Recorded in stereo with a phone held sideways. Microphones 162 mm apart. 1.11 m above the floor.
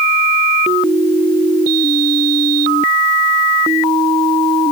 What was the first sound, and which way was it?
Only background noise.